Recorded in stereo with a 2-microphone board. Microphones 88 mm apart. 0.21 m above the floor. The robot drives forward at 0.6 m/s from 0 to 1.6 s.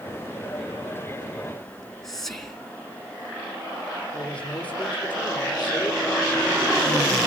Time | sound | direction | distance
1.7 | whispering | 5° left (ahead or behind) | 2.5 m
4.1 | a man speaking | 15° left (ahead or behind) | 7 m